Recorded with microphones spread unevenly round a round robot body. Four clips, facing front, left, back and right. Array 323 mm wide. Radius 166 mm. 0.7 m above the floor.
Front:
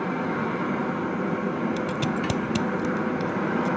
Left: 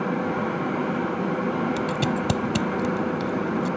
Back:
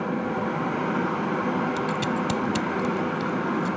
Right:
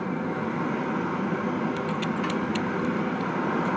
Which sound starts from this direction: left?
Scissors, at 1.8 s.